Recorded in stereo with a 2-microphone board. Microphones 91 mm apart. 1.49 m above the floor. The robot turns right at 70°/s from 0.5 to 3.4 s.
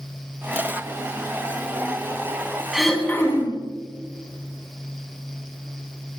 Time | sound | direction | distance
2.7 | throat clearing | 5° right | 3.5 m